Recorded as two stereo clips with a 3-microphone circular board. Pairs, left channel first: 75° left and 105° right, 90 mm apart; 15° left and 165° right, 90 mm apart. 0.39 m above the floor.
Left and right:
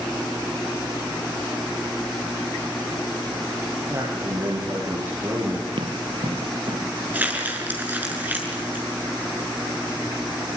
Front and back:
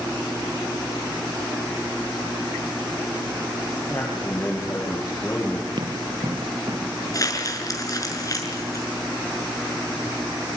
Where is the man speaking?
60° right, 8.5 m.